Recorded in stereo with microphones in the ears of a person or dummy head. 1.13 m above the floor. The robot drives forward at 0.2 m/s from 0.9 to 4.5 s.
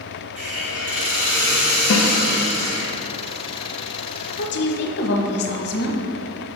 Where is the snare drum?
70° left (ahead or behind), 0.7 m.